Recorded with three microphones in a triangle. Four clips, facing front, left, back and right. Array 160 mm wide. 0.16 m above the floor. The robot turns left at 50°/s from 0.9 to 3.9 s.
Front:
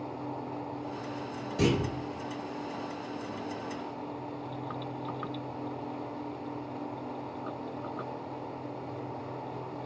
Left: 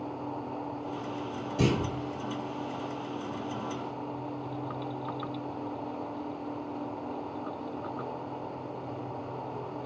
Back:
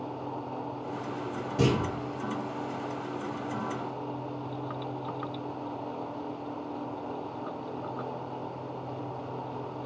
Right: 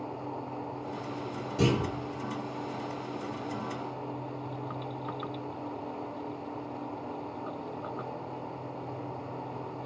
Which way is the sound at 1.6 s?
165° right.